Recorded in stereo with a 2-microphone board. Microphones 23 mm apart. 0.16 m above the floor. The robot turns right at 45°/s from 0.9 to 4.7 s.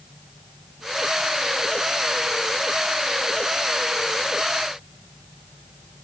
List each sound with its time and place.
Only background noise.